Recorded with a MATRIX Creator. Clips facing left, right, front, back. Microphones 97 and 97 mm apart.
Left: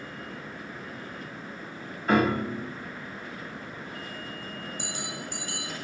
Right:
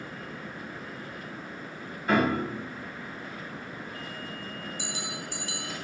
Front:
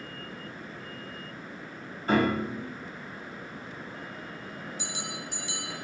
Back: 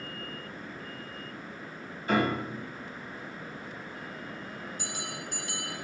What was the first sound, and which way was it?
A piano, straight ahead.